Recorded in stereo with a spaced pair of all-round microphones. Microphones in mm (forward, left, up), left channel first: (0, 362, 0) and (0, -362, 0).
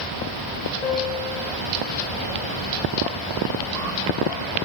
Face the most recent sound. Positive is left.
turn(degrees=85)